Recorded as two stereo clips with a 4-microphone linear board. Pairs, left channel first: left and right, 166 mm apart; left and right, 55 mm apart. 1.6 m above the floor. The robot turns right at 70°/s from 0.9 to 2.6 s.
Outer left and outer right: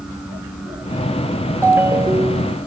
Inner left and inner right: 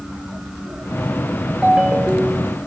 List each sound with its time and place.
1.6 s a ringtone: 15° right (ahead or behind), 1.1 m; by 2.6 s 30° right (ahead or behind), 1.1 m